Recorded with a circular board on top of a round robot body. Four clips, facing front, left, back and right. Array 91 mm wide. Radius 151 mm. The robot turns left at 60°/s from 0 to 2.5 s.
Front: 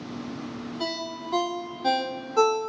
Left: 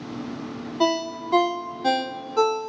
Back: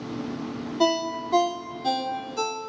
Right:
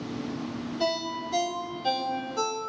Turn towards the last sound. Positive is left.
turn(degrees=25)